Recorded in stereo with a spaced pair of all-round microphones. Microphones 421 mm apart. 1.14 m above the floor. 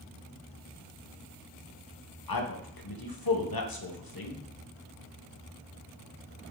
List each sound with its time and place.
2.3 s a man speaking: 55° left (ahead or behind), 0.7 m